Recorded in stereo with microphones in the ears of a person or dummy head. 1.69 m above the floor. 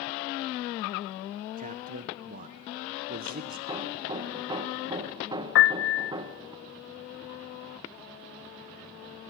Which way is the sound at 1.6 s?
45° right (ahead or behind).